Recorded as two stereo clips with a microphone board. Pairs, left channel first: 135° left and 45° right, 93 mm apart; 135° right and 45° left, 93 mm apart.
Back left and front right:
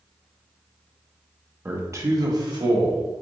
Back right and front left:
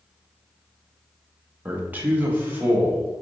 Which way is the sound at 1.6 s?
5° right.